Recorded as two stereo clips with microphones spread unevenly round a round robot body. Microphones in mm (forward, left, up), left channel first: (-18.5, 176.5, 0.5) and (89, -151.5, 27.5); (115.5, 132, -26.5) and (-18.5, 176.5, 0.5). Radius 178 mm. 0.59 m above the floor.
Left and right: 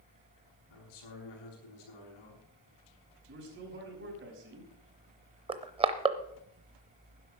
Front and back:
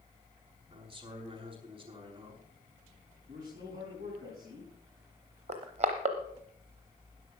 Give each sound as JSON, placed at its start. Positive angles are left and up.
{"t": 0.7, "sound": "a man speaking", "azimuth_deg": 110, "distance_m": 6.0}
{"t": 3.3, "sound": "a man speaking", "azimuth_deg": -135, "distance_m": 5.0}
{"t": 5.5, "sound": "crushing", "azimuth_deg": -145, "distance_m": 0.6}